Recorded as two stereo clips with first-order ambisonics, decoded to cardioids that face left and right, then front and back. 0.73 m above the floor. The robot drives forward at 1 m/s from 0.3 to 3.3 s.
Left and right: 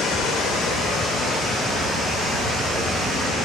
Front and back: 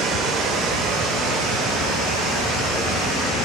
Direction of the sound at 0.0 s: 140° left.